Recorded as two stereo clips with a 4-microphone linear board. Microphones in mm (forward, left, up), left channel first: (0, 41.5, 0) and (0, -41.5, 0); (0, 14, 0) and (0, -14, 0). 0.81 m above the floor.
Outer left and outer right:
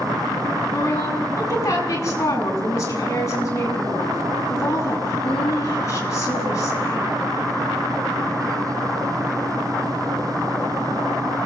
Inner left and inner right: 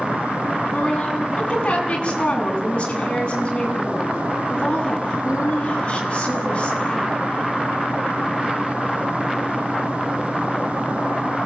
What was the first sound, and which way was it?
A woman speaking, 35° left (ahead or behind).